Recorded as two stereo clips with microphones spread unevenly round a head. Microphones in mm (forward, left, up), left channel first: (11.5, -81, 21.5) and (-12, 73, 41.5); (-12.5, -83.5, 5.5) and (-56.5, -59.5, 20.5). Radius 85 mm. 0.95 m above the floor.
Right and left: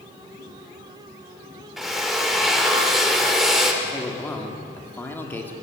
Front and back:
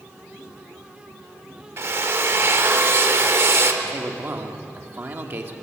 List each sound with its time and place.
1.8 s a drill: 175° right, 2 m
3.8 s a man speaking: 160° right, 2.5 m